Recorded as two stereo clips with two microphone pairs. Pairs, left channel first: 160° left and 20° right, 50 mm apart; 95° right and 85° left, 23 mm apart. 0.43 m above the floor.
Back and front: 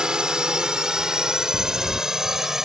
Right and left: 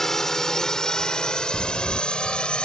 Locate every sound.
0.0 s a drone: 65° right; by 2.6 s 100° right
1.5 s a crack: 160° right